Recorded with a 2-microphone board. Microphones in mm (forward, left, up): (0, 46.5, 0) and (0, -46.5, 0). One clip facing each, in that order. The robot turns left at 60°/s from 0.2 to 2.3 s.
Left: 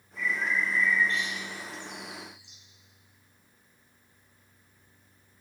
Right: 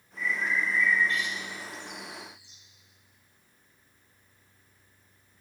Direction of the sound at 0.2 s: 80° left.